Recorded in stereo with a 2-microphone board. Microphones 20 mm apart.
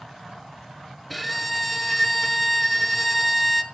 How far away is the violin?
About 1.0 m.